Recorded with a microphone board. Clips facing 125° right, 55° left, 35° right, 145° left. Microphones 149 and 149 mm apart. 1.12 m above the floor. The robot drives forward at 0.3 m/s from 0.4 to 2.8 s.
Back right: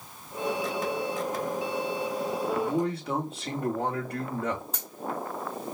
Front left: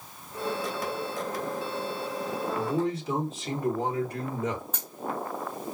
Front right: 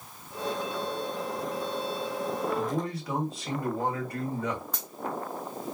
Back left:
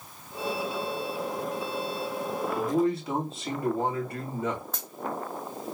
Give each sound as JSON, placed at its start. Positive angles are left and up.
{"t": 2.5, "sound": "a man speaking", "azimuth_deg": -150, "distance_m": 1.9}
{"t": 4.7, "sound": "a dropped coin", "azimuth_deg": -175, "distance_m": 1.7}